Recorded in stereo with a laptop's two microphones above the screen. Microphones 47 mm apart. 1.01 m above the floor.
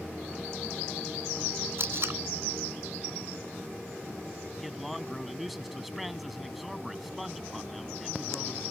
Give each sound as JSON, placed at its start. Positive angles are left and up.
{"t": 1.8, "sound": "tape being pulled", "side_deg": -55}
{"t": 4.6, "sound": "a man speaking", "side_deg": 0}